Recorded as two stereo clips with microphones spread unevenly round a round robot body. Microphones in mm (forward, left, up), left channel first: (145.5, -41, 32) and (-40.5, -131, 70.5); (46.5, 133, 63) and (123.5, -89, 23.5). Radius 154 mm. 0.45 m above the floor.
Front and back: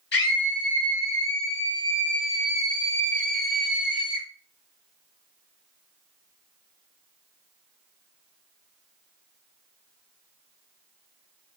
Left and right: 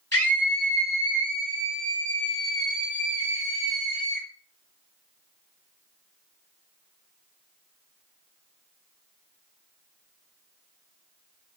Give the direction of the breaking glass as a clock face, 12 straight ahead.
I don't hear breaking glass.